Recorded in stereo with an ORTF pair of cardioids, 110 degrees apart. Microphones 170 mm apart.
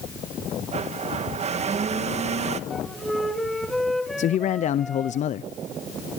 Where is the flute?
Straight ahead, 3 m.